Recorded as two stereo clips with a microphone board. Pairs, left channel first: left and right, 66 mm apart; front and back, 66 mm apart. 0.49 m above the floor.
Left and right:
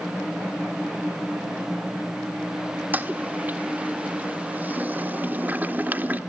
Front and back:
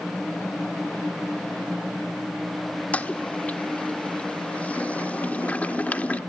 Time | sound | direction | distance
2.9 | a toilet flushing | 50° right | 1.2 m